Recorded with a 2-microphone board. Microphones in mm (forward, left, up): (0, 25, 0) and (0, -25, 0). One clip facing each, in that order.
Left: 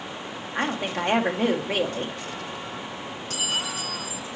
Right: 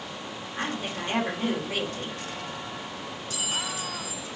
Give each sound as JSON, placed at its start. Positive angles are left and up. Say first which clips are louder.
{"t": 0.6, "sound": "a woman speaking", "louder": "left 5 dB", "side_deg": 80, "distance_m": 1.7}
{"t": 3.3, "sound": "a clink", "louder": "left 3 dB", "side_deg": 70, "distance_m": 3.5}